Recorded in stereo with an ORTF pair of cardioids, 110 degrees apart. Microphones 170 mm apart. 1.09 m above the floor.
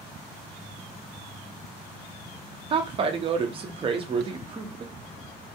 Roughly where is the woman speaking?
Ahead right.